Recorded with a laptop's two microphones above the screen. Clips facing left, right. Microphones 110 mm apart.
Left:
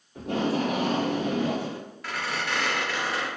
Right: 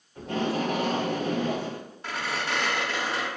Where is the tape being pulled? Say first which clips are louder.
Left 2 dB; 60° left (ahead or behind), 1.3 m.